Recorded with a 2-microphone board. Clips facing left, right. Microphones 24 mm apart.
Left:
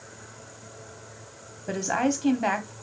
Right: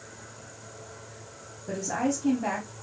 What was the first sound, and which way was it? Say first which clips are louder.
A woman speaking: left 3 dB; 60° left (ahead or behind).